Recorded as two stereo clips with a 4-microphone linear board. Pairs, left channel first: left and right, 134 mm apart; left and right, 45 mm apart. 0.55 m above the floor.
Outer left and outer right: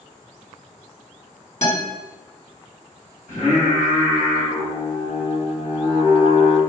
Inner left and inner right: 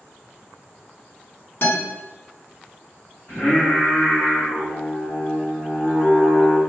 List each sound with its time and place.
1.6 s a guitar: 55° left (ahead or behind), 1.0 m
3.3 s singing: 55° left (ahead or behind), 1.2 m